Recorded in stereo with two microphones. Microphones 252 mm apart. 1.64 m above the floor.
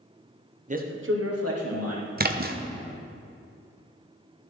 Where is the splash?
40° right (ahead or behind), 0.7 m.